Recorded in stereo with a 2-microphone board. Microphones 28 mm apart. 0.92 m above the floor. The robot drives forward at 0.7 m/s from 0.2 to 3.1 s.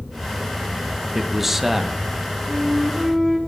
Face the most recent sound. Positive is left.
turn(degrees=-5)  # may be behind; listen again after turning